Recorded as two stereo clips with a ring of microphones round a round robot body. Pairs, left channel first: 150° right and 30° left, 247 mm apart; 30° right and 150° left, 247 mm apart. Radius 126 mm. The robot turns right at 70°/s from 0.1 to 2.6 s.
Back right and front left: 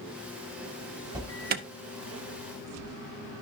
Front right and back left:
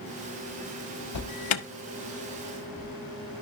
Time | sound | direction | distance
1.1 | an alarm | 50° right | 0.9 m